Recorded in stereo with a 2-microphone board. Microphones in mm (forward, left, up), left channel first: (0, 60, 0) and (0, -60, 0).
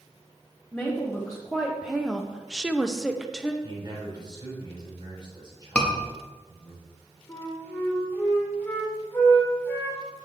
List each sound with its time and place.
0.7 s a woman speaking: centre (ahead or behind), 1.4 m
3.6 s a man speaking: 40° right (ahead or behind), 4 m
5.8 s a scream: 10° left (ahead or behind), 1.6 m
7.3 s a flute: 20° left (ahead or behind), 2 m